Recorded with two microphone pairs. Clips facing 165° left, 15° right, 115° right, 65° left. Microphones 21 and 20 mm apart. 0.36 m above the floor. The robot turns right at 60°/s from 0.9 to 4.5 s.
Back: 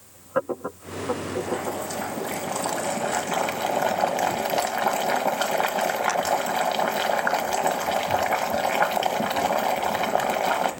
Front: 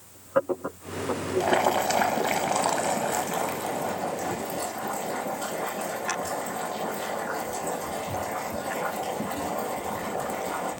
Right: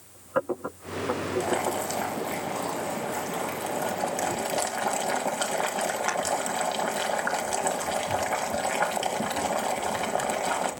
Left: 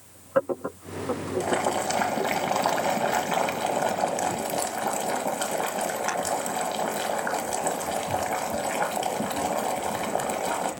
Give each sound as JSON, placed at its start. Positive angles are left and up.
{"t": 1.4, "sound": "boiling", "azimuth_deg": -20, "distance_m": 1.2}